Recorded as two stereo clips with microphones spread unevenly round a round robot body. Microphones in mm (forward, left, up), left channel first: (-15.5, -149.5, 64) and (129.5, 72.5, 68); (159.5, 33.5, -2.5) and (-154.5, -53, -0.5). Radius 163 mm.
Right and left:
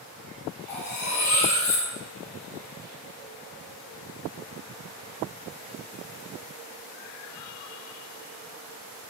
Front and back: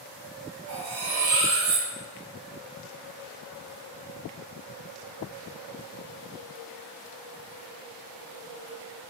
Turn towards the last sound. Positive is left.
turn(degrees=-115)